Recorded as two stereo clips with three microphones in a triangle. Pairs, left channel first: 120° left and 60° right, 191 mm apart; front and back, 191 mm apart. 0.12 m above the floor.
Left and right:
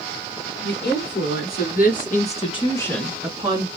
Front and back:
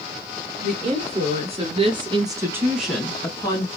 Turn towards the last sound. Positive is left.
turn(degrees=-30)